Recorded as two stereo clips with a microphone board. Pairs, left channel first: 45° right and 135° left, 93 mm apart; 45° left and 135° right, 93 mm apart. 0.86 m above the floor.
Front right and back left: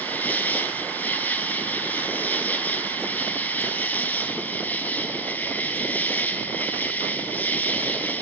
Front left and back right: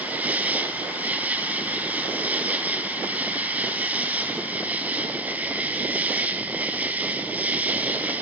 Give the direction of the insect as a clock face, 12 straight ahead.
3 o'clock.